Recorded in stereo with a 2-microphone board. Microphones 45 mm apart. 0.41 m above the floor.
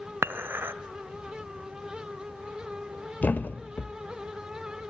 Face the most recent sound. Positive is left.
turn(degrees=40)  # may be behind; listen again after turning